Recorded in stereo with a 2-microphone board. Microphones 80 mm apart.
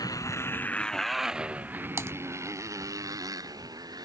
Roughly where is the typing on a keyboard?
Right.